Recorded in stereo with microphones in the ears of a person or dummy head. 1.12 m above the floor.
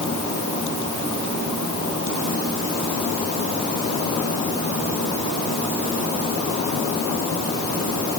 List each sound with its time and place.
Only background noise.